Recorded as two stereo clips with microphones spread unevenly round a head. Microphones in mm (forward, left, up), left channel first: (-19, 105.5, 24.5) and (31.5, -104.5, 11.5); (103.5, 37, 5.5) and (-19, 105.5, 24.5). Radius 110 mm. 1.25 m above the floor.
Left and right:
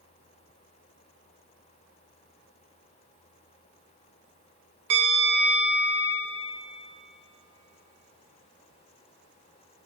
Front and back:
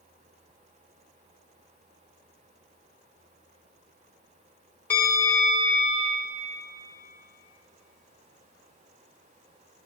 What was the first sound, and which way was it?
A bell, 115° right.